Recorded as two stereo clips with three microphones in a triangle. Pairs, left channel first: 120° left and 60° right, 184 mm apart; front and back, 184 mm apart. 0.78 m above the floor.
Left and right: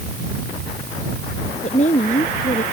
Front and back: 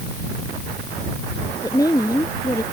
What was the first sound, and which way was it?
A woman speaking, 70° left.